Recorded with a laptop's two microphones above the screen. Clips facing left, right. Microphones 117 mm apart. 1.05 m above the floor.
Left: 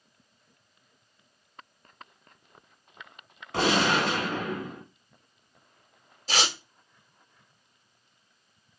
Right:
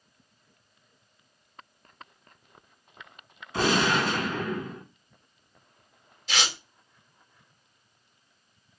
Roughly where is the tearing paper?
Left.